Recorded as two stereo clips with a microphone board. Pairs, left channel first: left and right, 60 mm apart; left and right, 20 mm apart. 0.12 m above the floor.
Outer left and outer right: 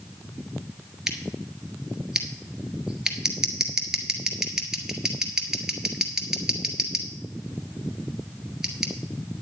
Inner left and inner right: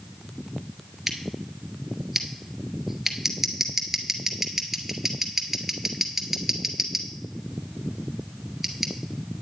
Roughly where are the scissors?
Centre.